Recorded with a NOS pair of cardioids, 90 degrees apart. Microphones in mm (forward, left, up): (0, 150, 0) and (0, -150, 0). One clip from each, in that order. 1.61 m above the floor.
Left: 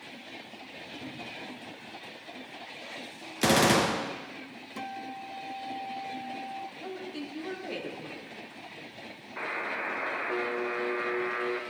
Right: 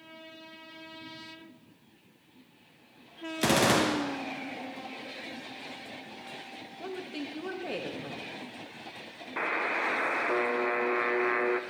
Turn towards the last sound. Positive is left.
turn(degrees=-25)